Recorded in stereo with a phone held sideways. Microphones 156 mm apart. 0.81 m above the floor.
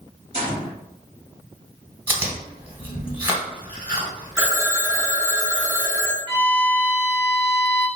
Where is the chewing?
10° right (ahead or behind), 1.1 m.